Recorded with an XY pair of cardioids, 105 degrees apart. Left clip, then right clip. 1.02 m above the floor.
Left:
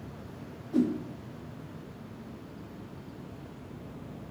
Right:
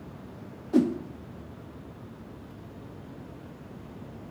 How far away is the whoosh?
About 0.8 m.